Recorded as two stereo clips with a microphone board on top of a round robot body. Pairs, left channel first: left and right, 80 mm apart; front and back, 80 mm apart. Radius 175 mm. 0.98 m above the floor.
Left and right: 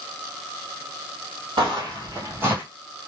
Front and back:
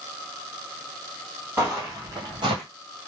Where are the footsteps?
110° right, 1.8 m; by 2.6 s 165° right, 1.5 m.